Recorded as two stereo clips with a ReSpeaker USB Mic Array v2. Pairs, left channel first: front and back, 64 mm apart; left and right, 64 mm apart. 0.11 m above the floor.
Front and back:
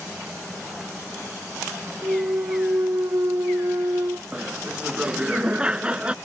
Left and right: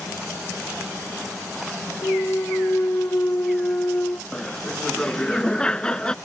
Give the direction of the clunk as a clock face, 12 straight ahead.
7 o'clock.